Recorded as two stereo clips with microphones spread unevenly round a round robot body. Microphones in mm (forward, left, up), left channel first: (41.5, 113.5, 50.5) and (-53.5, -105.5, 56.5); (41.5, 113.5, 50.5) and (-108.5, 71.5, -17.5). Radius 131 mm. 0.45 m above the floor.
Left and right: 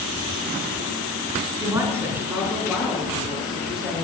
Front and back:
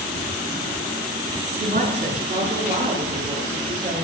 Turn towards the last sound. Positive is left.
turn(degrees=155)